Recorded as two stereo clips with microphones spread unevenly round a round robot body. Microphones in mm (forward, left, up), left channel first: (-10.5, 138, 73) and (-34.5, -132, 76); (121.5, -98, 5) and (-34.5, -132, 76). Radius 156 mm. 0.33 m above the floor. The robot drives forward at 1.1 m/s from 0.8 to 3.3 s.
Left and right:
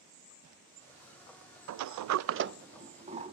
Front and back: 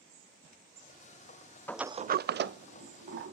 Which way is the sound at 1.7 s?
55° right.